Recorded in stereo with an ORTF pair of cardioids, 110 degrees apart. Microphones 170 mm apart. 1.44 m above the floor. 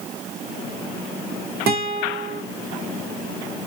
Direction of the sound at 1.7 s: 70° right.